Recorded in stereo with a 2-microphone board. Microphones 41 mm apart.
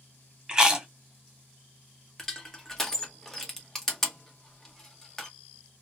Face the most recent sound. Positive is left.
turn(degrees=10)  # may be behind; listen again after turning